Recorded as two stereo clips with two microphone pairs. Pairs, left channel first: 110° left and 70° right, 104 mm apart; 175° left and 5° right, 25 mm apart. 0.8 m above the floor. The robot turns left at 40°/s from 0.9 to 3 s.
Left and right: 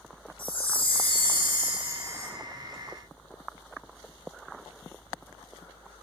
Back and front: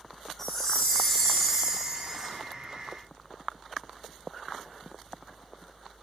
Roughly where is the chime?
Left.